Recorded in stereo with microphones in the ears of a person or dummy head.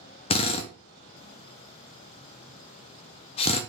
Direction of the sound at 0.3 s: 30° left (ahead or behind).